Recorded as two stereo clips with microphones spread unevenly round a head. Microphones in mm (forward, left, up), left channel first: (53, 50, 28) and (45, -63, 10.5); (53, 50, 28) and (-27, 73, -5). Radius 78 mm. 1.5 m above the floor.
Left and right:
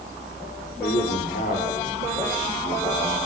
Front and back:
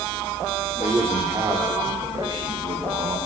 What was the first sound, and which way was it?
A man speaking, 100° left.